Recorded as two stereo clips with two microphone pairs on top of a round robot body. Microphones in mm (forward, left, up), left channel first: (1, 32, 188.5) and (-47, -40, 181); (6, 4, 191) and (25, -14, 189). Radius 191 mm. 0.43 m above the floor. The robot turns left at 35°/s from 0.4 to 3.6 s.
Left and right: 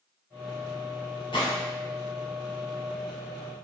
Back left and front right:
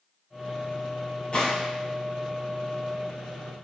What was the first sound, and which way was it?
A gunshot, 80° left.